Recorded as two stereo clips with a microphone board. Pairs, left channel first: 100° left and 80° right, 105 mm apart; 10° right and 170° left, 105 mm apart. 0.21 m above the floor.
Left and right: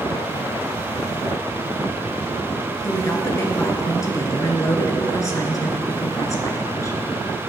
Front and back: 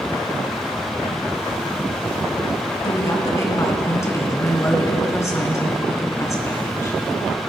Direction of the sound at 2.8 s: 45° left.